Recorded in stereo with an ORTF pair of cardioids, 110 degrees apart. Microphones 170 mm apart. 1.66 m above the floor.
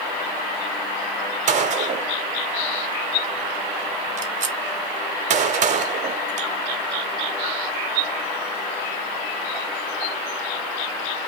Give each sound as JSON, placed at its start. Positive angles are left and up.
{"t": 1.5, "sound": "a gunshot", "azimuth_deg": -45, "distance_m": 0.9}